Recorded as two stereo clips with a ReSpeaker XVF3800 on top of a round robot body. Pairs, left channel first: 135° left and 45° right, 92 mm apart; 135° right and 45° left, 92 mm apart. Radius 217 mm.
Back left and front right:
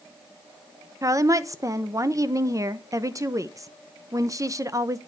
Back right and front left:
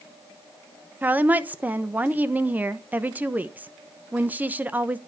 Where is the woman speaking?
15° right, 1.1 m.